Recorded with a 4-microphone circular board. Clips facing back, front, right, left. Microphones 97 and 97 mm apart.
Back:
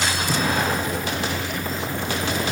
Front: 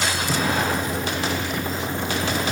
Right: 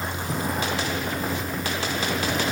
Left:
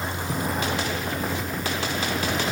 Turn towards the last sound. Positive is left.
No sound to turn to.